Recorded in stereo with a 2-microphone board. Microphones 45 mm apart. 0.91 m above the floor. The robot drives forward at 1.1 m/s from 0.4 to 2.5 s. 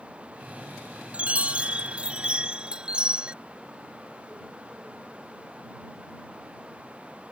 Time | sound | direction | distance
1.1 | a chime | 30° right (ahead or behind) | ?